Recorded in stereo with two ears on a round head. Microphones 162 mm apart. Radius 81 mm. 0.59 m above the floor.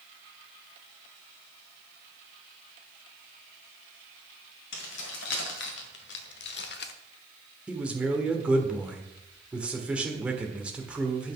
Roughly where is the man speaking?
Centre.